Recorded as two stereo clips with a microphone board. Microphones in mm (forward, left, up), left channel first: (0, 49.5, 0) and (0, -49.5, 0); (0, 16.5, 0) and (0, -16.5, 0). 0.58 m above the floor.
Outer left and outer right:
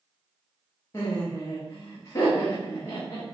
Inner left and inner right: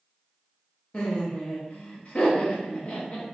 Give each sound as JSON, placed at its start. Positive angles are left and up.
{"t": 0.9, "sound": "laughter", "side_deg": 35, "distance_m": 0.7}